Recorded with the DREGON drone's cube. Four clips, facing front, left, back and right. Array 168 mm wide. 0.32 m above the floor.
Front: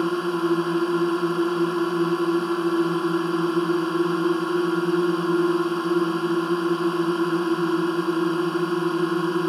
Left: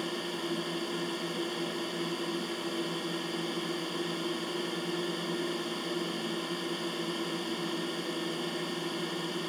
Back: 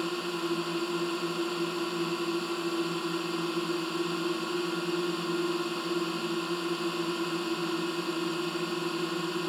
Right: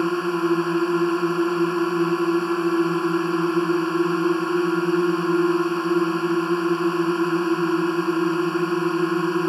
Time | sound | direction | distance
0.0 | a drone | 60° right | ?